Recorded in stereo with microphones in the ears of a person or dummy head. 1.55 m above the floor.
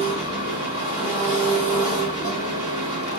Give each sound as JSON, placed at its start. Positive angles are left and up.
{"t": 0.0, "sound": "an engine running", "side_deg": -35, "distance_m": 1.7}